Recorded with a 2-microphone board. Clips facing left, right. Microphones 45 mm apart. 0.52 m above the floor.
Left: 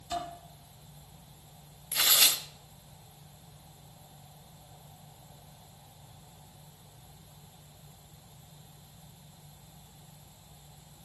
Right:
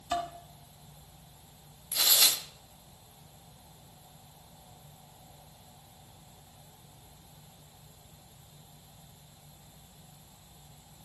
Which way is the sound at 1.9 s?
40° left (ahead or behind).